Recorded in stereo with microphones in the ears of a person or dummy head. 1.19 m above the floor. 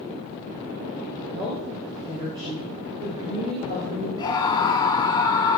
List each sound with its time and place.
1.3 s a woman speaking: 10° right (ahead or behind), 5 m; by 4.1 s 30° right (ahead or behind), 6 m
4.2 s a scream: 25° left (ahead or behind), 3.5 m